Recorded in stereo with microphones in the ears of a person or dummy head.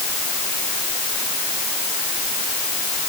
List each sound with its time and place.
Only background noise.